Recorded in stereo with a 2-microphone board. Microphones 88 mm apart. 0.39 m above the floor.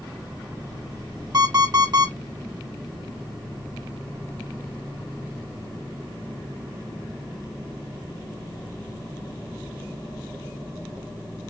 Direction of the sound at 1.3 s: 45° right (ahead or behind).